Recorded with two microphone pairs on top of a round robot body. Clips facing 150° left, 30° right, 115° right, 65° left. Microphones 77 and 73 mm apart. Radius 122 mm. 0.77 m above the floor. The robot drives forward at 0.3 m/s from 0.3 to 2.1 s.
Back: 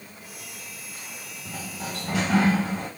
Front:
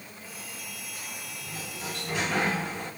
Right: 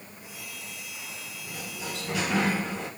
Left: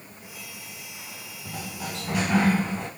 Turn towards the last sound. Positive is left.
turn(degrees=145)